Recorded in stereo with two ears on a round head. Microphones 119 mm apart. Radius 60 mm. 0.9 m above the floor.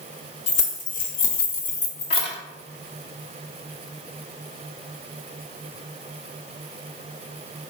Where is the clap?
No clap in this recording.